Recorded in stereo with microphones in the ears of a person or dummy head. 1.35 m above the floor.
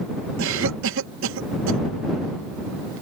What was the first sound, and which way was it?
A cough, 70° right (ahead or behind).